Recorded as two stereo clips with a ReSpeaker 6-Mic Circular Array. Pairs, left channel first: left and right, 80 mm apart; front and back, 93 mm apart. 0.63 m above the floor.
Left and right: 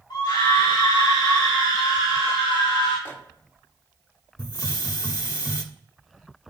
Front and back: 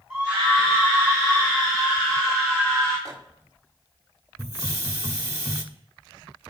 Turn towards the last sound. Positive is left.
turn(degrees=130)